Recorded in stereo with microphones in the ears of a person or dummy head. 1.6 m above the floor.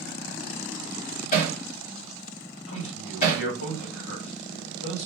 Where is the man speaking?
75° left (ahead or behind), 1.7 m.